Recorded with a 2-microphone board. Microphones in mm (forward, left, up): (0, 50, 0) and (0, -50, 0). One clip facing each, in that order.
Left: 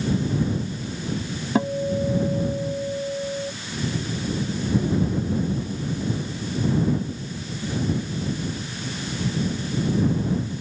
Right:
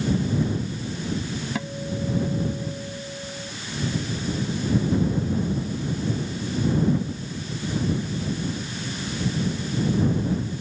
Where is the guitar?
35° left (ahead or behind).